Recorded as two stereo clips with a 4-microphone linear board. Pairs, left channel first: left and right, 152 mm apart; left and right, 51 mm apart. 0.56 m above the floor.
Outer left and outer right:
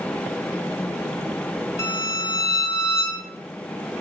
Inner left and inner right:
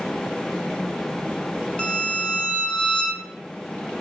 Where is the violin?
20° left (ahead or behind), 0.6 m.